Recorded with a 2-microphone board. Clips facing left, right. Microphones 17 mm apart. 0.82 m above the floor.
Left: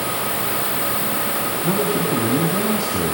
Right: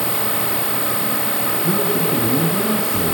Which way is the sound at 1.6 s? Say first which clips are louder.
Even; 70° left (ahead or behind).